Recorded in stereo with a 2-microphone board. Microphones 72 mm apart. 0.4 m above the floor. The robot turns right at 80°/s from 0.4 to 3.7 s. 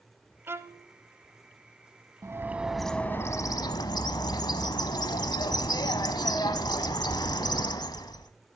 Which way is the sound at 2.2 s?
45° right.